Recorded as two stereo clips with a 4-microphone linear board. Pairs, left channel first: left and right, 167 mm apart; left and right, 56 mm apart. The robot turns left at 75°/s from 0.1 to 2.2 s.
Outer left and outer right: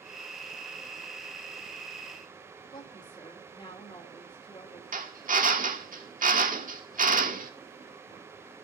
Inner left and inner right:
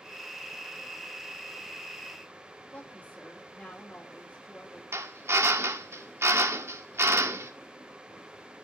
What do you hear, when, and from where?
2.7 s a woman speaking: 30° left (ahead or behind), 2.5 m
4.9 s a drill: 50° right (ahead or behind), 1.6 m